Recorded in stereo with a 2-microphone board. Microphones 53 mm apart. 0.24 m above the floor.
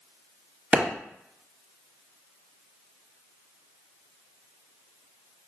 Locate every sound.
0.7 s a clap: 20° right (ahead or behind), 0.9 m